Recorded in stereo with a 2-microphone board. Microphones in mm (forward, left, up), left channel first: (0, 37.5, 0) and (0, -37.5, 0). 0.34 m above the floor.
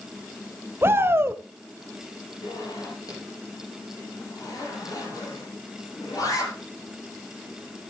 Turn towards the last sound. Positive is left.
turn(degrees=55)  # may be behind; listen again after turning